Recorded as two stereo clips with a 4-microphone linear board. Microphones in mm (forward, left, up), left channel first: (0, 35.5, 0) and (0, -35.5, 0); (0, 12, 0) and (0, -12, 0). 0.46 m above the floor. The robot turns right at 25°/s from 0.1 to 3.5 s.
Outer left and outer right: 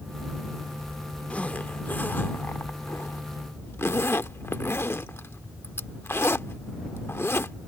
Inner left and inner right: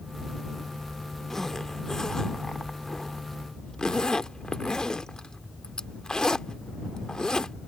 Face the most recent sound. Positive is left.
turn(degrees=35)  # may be behind; listen again after turning